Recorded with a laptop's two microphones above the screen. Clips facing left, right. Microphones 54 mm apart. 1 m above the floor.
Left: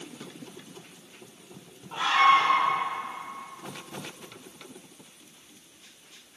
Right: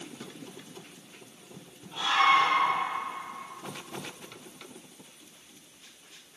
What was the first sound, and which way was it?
A scream, 55° left (ahead or behind).